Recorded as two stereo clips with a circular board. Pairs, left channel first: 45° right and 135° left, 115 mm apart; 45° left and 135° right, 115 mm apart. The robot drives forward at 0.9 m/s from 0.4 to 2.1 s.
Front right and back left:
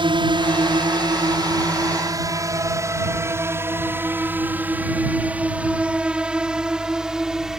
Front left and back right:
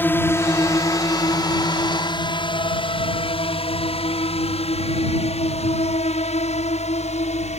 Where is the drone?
110° left; by 7.6 s 50° left.